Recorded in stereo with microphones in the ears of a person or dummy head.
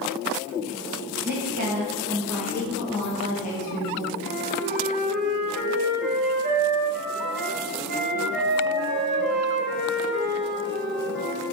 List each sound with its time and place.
1.2 s a woman speaking: 50° right (ahead or behind), 0.9 m; by 4.1 s 45° left (ahead or behind), 1.5 m
4.2 s a flute: 55° right (ahead or behind), 1.2 m